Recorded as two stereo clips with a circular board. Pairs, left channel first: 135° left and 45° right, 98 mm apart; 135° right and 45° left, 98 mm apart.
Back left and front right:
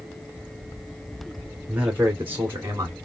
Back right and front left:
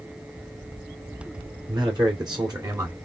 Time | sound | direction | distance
1.7 | a man speaking | 30° left | 2.5 m